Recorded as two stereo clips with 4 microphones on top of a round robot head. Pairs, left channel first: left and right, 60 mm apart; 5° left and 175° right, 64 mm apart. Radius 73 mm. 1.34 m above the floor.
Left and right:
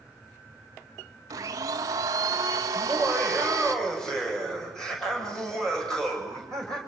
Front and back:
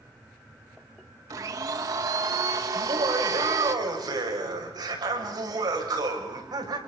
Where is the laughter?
170° left, 6.5 m.